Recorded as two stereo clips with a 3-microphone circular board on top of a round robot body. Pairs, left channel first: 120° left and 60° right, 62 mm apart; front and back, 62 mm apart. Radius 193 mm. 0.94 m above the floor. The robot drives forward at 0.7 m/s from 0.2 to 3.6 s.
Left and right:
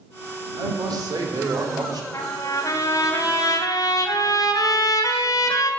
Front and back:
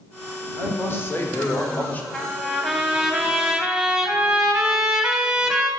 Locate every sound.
0.6 s a man speaking: 50° right, 4 m; by 2.0 s 65° right, 3 m
2.1 s a trumpet: 80° left, 3 m; by 5.7 s 100° left, 3 m